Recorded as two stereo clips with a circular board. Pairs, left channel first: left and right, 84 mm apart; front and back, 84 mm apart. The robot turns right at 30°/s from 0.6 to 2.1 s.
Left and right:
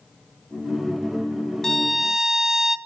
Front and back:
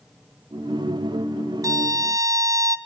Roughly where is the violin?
Behind.